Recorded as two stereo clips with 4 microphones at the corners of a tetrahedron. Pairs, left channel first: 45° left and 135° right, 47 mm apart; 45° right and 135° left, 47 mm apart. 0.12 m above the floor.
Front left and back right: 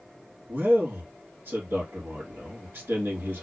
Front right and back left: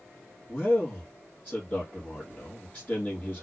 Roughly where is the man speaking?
Right.